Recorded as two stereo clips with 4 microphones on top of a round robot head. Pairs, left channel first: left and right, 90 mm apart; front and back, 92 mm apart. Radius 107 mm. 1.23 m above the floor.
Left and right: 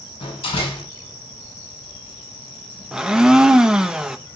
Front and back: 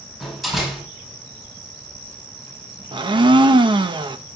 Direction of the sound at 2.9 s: 170° right.